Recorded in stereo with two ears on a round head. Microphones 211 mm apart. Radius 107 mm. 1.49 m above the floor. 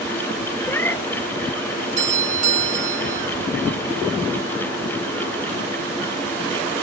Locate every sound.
0.6 s a cat meowing: 10° left (ahead or behind)
2.0 s a doorbell: 30° right (ahead or behind)